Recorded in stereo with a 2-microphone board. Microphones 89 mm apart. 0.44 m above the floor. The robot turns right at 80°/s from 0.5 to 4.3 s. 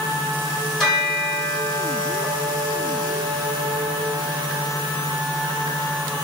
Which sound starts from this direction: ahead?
A bell, at 0.8 s.